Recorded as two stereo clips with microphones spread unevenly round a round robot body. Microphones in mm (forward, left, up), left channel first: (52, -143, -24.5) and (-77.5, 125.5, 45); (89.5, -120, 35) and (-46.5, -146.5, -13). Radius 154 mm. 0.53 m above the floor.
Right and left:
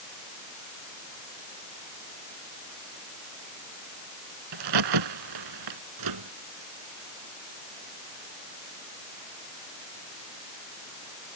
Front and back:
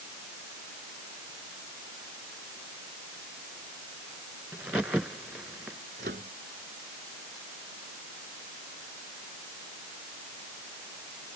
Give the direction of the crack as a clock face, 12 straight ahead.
9 o'clock.